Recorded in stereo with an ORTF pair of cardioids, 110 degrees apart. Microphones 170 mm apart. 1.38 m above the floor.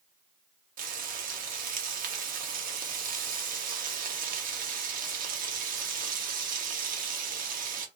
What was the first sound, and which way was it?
Frying, 60° right.